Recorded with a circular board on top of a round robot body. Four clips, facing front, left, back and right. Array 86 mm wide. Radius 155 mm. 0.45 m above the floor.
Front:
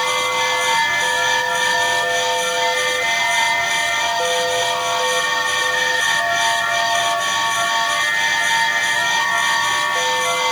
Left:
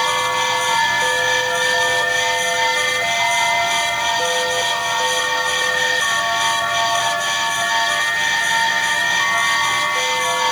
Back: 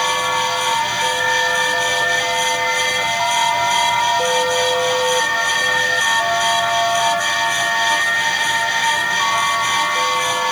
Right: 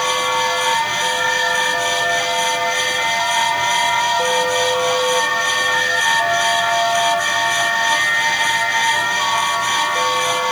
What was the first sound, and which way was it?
Only background noise.